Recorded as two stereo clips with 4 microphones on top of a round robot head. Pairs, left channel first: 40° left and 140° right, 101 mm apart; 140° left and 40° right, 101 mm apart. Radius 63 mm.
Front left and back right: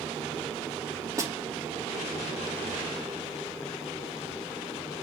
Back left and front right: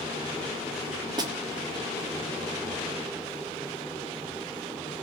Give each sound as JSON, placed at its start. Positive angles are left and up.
{"t": 1.2, "sound": "a snare drum", "azimuth_deg": -85, "distance_m": 1.8}